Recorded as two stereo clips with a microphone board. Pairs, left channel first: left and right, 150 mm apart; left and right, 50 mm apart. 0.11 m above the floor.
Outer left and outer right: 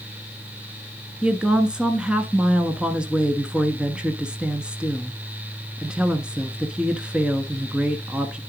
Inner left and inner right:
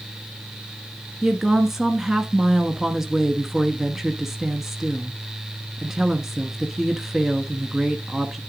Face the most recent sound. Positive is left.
turn(degrees=-5)  # may be behind; listen again after turning